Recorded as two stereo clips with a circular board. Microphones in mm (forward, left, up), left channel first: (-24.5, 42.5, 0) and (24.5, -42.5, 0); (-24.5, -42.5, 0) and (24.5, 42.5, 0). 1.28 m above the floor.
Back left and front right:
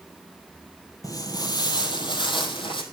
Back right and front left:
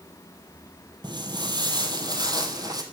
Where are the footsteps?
80° left, 2 m; by 2.8 s 105° left, 3 m.